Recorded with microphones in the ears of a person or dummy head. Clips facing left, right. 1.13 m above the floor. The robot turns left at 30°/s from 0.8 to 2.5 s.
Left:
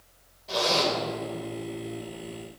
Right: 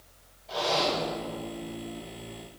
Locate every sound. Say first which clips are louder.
0.5 s a zipper: left 2 dB; 85° left, 3 m; by 0.9 s 80° left, 3 m